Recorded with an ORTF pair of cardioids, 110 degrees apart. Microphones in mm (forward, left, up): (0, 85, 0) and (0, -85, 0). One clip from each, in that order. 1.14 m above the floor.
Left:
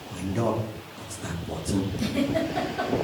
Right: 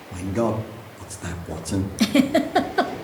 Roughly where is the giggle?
Ahead right.